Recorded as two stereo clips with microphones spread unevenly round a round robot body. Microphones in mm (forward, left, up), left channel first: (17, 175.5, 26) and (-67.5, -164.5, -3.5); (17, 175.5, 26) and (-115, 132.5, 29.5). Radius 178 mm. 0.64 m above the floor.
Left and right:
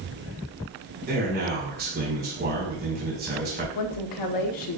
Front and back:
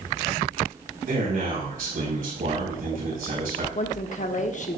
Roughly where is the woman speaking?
Ahead left.